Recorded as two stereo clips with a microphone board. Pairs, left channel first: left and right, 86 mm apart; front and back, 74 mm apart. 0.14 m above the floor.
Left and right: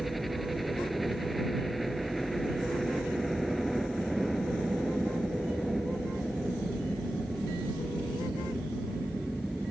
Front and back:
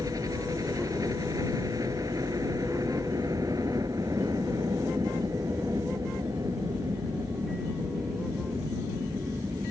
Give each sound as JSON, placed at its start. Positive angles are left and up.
{"t": 0.0, "sound": "a helicopter", "azimuth_deg": 180}